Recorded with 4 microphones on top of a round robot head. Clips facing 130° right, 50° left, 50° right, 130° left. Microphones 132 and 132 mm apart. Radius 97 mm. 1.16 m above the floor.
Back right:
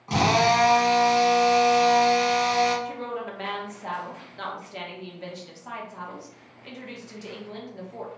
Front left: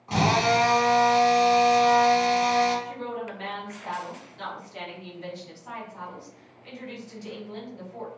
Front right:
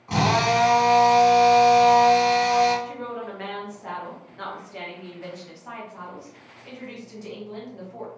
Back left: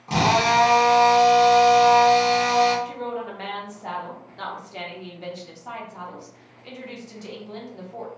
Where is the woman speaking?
165° right, 0.9 m.